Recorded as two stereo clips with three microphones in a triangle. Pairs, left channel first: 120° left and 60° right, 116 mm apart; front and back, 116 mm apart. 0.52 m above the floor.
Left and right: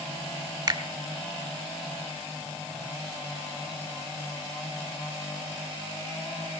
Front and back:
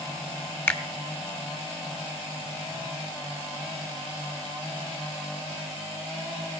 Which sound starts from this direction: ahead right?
A finger snap, at 0.7 s.